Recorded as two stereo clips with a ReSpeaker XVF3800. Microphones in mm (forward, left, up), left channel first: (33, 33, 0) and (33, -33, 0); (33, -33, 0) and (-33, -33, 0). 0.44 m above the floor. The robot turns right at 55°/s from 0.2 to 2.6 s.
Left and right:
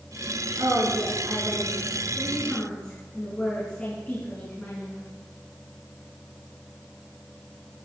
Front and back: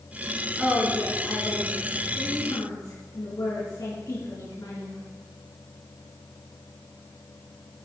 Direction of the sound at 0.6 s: 95° right.